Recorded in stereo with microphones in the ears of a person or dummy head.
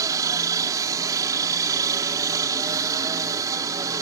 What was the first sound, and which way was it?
A helicopter, 15° right (ahead or behind).